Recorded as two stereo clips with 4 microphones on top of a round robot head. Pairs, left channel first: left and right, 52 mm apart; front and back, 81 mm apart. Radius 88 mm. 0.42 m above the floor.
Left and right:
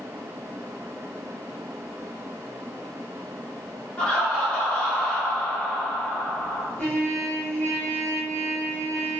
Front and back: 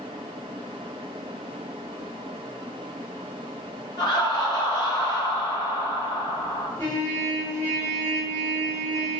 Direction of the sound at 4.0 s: 20° left.